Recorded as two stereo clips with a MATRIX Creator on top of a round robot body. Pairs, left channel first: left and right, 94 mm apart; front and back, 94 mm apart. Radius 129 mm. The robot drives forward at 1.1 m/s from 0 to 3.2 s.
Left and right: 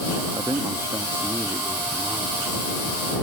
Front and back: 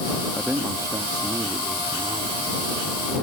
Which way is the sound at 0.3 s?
105° right.